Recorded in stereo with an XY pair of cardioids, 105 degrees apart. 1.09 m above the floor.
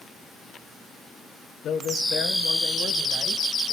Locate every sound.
1.6 s a man speaking: 70° left, 3.5 m